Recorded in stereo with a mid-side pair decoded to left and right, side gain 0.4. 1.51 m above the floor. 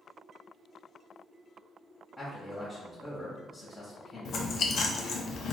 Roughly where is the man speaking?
Ahead left.